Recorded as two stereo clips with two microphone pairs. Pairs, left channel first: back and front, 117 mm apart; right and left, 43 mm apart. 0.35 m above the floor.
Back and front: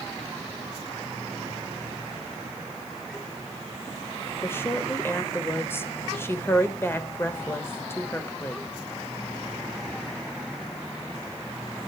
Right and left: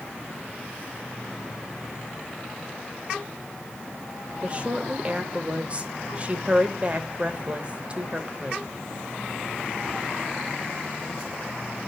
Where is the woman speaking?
125° left, 1.1 m.